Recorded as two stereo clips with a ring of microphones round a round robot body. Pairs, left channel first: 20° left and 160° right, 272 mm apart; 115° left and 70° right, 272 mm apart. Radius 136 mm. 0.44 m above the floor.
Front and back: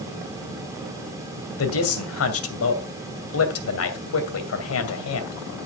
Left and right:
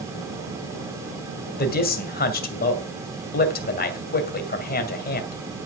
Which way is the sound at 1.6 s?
55° left.